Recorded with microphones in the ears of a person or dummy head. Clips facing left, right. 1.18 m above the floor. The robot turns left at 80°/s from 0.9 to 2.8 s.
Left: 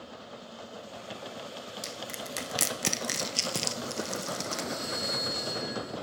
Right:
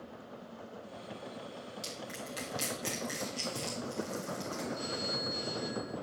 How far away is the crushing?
About 0.7 m.